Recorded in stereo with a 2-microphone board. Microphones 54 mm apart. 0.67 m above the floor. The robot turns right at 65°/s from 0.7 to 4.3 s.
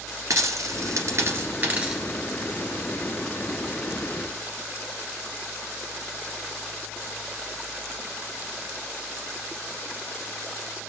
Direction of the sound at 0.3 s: 75° right (ahead or behind).